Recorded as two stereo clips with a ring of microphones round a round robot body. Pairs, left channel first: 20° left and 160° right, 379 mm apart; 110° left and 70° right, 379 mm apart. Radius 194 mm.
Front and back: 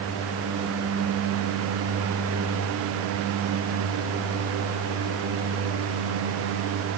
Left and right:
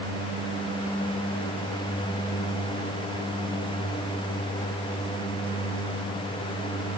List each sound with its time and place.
Only background noise.